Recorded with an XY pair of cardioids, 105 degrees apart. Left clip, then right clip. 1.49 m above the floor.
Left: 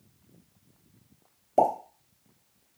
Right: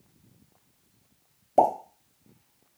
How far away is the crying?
I don't hear crying.